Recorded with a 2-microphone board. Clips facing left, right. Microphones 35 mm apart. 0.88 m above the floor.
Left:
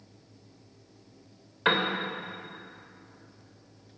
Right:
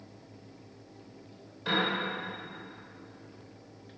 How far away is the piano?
About 2.5 m.